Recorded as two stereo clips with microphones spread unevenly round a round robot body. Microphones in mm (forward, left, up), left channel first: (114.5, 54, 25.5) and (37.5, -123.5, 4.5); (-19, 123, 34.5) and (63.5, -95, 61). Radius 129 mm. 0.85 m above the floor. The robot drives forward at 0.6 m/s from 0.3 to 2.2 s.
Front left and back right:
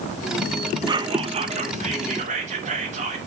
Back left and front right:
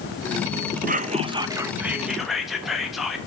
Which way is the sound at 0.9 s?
95° right.